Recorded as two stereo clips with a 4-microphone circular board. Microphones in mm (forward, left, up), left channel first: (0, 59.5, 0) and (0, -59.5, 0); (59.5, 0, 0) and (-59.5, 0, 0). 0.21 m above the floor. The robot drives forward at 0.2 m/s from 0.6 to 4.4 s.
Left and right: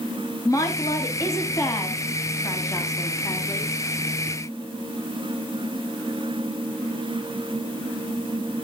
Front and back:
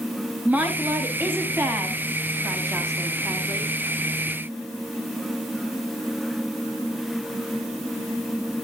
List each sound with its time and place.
0.5 s a woman speaking: 115° left, 1.7 m; by 3.7 s 140° left, 2.0 m